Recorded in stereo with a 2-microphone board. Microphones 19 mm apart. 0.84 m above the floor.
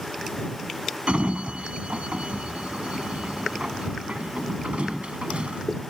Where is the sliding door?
85° right.